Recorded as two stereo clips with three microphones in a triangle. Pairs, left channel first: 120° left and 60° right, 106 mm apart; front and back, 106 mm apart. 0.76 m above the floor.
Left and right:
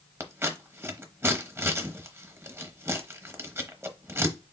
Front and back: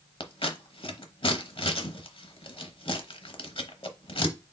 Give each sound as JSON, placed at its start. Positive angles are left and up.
{"t": 0.2, "sound": "scissors", "azimuth_deg": 0, "distance_m": 0.9}